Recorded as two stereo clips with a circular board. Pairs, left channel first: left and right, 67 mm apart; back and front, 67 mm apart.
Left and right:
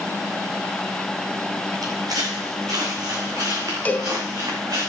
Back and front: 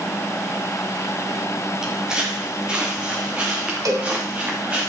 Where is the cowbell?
25° left, 2.5 m.